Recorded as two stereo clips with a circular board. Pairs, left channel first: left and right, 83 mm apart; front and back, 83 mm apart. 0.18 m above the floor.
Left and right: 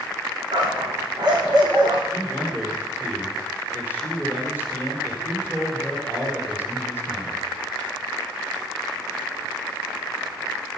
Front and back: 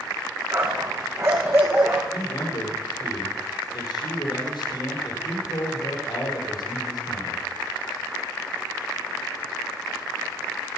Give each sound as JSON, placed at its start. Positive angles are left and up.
{"t": 0.5, "sound": "a dog barking", "azimuth_deg": -125, "distance_m": 5.0}
{"t": 2.1, "sound": "a man speaking", "azimuth_deg": -25, "distance_m": 7.5}